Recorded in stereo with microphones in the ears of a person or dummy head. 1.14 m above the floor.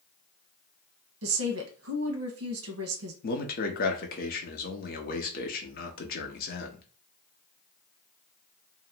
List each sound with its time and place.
1.2 s a woman speaking: 75° right (ahead or behind), 1.0 m
3.2 s a man speaking: 45° left (ahead or behind), 0.7 m